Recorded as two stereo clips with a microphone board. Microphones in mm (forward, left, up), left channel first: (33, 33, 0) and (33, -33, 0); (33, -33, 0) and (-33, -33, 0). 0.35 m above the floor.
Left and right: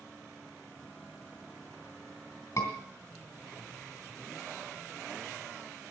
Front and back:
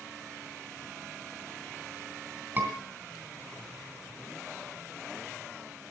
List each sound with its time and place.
2.6 s a scream: 125° left, 2.5 m